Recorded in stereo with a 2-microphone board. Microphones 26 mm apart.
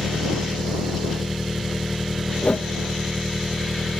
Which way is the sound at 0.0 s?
15° right (ahead or behind).